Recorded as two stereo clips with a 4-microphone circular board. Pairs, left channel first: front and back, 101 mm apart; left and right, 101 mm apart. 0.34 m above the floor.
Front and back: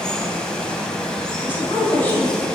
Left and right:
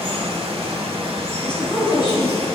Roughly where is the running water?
Right.